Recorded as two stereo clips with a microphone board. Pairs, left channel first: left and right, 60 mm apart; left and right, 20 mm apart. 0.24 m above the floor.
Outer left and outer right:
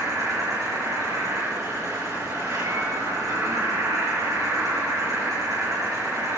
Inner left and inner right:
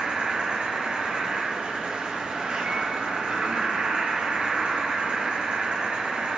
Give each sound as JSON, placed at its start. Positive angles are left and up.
{"t": 0.0, "sound": "an insect", "side_deg": -65, "distance_m": 6.5}